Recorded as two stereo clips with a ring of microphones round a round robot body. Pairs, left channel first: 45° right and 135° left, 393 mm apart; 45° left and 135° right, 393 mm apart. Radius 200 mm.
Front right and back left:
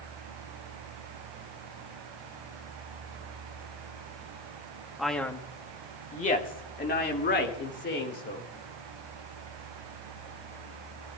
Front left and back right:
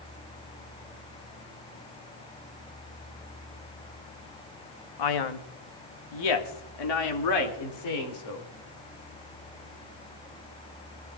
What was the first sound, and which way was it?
A man speaking, 45° left.